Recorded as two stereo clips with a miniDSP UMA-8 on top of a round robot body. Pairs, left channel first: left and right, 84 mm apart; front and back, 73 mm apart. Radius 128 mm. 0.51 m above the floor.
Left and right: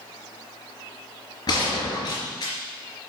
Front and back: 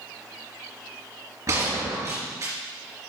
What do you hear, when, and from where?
1.5 s a gunshot: 130° left, 3.5 m